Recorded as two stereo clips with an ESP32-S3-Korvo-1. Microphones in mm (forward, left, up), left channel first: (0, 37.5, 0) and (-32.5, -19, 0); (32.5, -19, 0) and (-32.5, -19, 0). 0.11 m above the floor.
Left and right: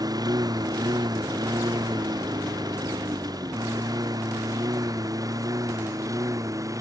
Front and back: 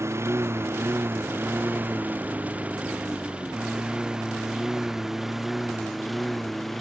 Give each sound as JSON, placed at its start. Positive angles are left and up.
{"t": 0.0, "sound": "a lawn mower", "azimuth_deg": -135}